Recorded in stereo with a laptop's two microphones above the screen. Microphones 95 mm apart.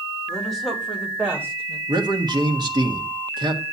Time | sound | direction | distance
0.3 | a woman speaking | 10° left (ahead or behind) | 2.5 m
1.9 | a man speaking | 50° right (ahead or behind) | 1.5 m